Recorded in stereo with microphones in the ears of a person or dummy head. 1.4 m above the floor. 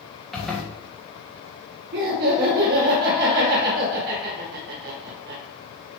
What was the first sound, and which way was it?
A zipper, centre (ahead or behind).